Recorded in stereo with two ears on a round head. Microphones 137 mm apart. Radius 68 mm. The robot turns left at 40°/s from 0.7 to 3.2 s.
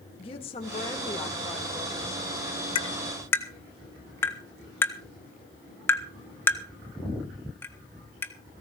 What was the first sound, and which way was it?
A woman speaking, 40° left.